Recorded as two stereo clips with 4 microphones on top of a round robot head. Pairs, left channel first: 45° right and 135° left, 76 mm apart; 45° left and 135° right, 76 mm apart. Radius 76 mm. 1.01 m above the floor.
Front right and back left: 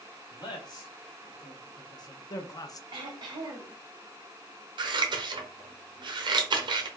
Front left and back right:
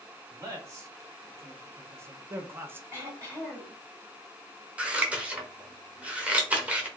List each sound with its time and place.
0.3 s a man speaking: 80° right, 1.9 m; by 2.8 s 75° right, 0.5 m
2.9 s throat clearing: 170° left, 1.9 m
4.8 s scissors: 155° left, 0.9 m